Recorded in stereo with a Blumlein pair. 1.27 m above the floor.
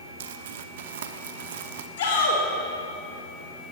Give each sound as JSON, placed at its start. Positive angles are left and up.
{"t": 0.2, "sound": "crumpling", "azimuth_deg": -55, "distance_m": 0.8}
{"t": 2.0, "sound": "a shout", "azimuth_deg": 55, "distance_m": 4.5}